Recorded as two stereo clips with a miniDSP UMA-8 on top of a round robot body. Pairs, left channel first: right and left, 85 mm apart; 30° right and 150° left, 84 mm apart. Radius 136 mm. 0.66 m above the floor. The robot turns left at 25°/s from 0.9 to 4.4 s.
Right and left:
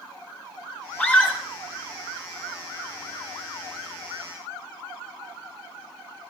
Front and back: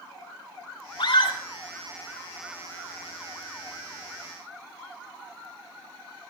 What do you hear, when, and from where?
1.0 s a scream: 15° right, 6 m; by 1.4 s 25° right, 6 m